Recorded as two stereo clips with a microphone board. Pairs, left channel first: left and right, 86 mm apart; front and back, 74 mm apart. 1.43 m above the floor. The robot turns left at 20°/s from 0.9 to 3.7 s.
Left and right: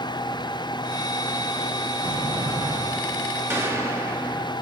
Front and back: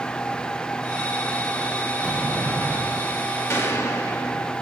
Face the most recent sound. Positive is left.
turn(degrees=-45)